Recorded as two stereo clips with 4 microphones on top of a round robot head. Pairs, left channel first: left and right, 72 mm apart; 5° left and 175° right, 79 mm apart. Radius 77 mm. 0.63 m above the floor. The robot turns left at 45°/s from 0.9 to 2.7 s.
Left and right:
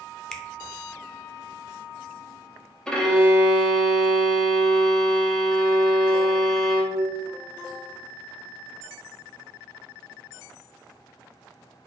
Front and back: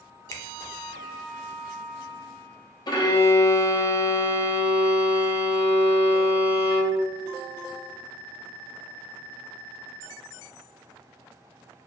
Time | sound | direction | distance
0.3 | a finger snap | 15° left | 0.5 m
2.9 | a violin | 15° left | 0.7 m